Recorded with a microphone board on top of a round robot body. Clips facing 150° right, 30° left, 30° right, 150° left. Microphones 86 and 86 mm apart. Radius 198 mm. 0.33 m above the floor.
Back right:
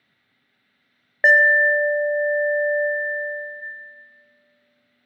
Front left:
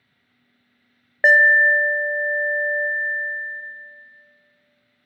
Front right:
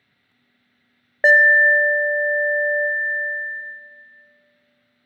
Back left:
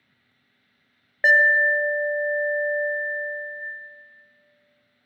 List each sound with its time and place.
1.2 s an alarm: 60° right, 0.7 m